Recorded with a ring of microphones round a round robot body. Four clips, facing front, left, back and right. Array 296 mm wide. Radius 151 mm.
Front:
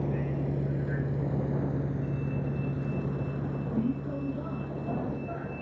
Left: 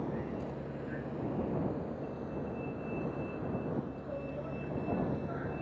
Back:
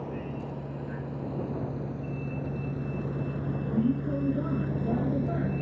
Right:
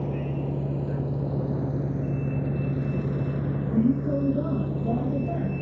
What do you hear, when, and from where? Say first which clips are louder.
0.0 s a vehicle: right 7 dB, front 4 dB; 55° right; by 5.6 s 130° right